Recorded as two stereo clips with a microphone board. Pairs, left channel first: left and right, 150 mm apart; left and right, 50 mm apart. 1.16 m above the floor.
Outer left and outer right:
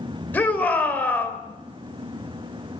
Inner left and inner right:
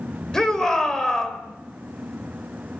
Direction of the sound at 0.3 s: 15° left (ahead or behind).